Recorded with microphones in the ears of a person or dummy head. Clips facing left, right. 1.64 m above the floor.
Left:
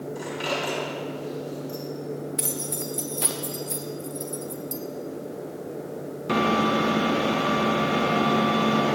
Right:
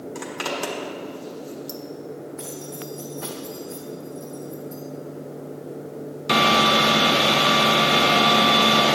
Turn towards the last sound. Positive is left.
turn(degrees=45)  # may be behind; listen again after turning